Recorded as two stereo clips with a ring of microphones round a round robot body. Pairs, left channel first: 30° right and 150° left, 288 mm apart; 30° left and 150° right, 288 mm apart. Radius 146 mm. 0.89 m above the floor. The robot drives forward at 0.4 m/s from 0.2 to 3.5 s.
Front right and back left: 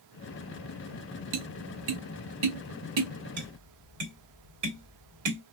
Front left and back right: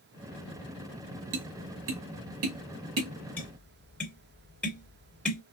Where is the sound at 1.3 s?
155° left, 0.7 m; by 3.1 s 170° left, 1.4 m.